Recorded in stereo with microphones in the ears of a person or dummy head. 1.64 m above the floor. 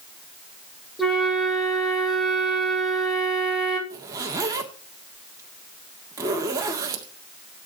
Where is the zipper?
15° right (ahead or behind), 1.6 m.